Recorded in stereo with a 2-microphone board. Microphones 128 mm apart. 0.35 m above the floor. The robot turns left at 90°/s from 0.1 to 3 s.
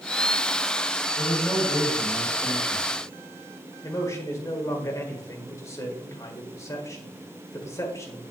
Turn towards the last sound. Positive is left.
turn(degrees=25)  # may be behind; listen again after turning